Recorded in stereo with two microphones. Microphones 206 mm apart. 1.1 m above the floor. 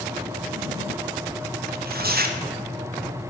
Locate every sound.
1.7 s tearing paper: 50° right (ahead or behind), 0.6 m